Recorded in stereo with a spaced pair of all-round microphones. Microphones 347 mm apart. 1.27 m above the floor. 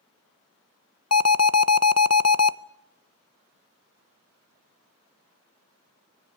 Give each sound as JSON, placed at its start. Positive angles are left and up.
{"t": 1.1, "sound": "an alarm", "side_deg": 50, "distance_m": 0.6}